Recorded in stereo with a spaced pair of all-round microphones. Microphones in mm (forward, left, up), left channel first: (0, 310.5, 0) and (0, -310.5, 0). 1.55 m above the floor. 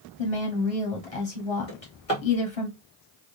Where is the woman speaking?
70° left (ahead or behind), 1.2 m.